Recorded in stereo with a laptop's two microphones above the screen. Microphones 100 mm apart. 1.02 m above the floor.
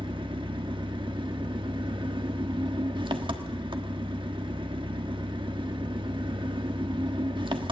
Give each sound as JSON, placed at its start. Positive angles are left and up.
{"t": 0.0, "sound": "an engine running", "side_deg": -55, "distance_m": 1.2}